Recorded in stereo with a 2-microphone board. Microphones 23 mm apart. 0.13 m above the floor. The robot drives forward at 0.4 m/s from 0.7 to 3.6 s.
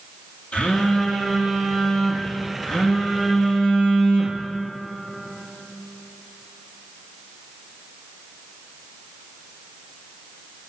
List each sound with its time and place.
0.5 s a phone buzzing: 70° left (ahead or behind), 1.2 m; by 4.5 s 35° left (ahead or behind), 1.8 m